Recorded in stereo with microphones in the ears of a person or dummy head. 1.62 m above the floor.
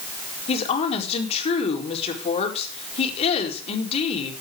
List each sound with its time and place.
0.5 s a woman speaking: 35° left (ahead or behind), 4.5 m